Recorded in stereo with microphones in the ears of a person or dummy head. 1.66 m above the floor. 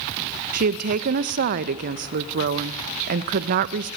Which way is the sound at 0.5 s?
55° right (ahead or behind).